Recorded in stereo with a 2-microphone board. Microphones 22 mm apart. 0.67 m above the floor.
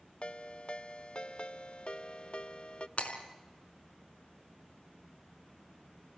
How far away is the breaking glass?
About 4 m.